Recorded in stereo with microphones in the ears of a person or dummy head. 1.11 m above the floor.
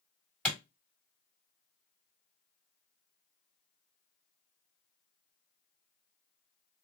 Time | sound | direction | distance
0.5 | a clap | 5° left (ahead or behind) | 1.8 m